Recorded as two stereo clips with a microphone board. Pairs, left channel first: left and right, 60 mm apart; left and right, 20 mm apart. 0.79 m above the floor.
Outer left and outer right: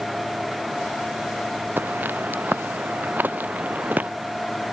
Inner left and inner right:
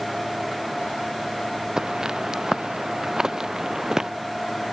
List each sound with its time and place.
1.8 s footsteps: 35° right (ahead or behind); by 4.1 s 30° right (ahead or behind)